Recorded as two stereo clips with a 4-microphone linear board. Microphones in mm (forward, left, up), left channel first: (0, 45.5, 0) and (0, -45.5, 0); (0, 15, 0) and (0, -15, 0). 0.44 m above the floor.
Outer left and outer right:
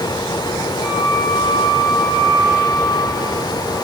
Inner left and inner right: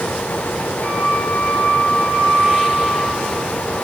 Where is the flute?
50° left (ahead or behind), 7.5 m.